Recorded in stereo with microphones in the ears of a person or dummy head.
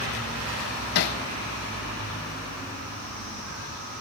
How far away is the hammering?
About 0.9 m.